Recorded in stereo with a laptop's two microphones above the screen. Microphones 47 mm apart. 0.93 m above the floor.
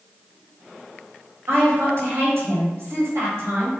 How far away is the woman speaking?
About 1.8 m.